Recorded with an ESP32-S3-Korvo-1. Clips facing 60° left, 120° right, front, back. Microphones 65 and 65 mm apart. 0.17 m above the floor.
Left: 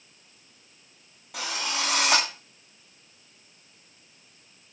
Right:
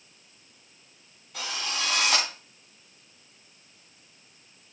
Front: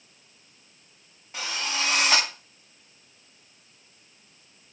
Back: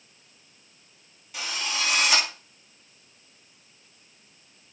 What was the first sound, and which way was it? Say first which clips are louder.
A drill: left 2 dB, front 1 dB; 60° left.